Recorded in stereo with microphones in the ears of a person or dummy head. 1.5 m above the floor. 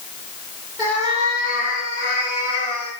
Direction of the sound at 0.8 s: 20° right (ahead or behind).